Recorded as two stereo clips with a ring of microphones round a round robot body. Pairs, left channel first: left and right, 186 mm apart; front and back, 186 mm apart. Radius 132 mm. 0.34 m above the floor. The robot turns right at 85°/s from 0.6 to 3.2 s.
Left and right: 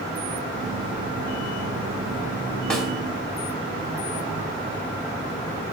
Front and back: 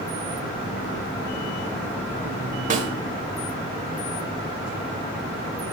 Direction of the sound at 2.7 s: 175° left.